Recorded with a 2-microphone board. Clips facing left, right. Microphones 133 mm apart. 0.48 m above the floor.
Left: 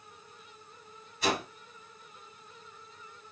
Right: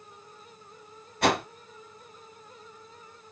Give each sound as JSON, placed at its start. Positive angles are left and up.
{"t": 1.2, "sound": "a whoosh", "side_deg": -70, "distance_m": 1.1}